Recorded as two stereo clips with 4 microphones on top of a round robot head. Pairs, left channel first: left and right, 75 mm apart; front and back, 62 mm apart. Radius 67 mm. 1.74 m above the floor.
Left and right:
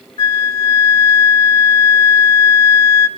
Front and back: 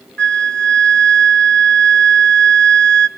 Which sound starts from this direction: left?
A flute, at 0.2 s.